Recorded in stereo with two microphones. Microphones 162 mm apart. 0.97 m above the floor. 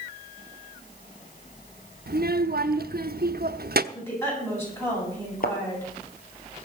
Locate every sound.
2.1 s a child speaking: 75° right (ahead or behind), 0.9 m
3.9 s a woman speaking: 15° left (ahead or behind), 8.5 m
5.4 s a thud: 60° left (ahead or behind), 2 m